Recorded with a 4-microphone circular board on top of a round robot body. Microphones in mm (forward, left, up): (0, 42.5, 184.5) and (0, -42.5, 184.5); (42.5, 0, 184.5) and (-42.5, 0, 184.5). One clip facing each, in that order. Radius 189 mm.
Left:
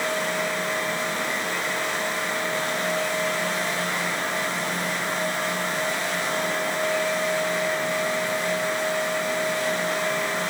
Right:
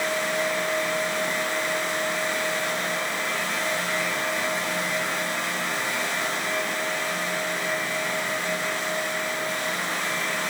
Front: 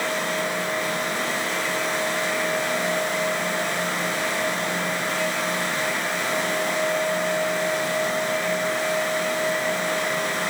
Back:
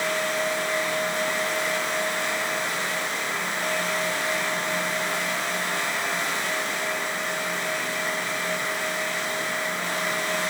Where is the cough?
I don't hear a cough.